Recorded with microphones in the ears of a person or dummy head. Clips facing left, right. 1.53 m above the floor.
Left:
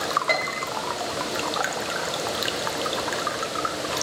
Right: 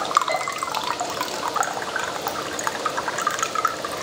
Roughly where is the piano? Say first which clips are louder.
Right 1 dB; left.